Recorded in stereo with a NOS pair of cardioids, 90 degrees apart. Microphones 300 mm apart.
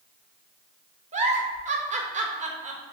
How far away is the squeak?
No squeak in this recording.